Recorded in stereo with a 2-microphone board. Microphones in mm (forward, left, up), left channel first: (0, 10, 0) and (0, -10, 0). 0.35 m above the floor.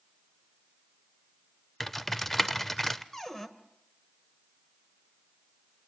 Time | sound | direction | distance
1.8 | typing on a keyboard | 10° left (ahead or behind) | 0.6 m
3.1 | a cupboard door | 20° left (ahead or behind) | 1.3 m